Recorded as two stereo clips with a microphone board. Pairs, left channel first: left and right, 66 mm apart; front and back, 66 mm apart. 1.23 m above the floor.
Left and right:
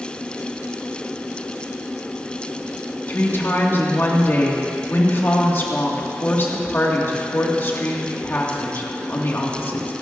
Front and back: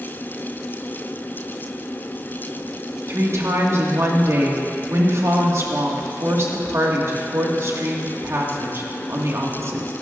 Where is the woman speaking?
140° left, 1.9 m.